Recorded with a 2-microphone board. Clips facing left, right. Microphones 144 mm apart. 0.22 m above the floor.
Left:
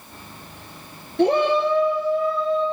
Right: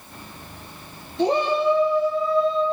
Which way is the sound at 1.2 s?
65° left (ahead or behind).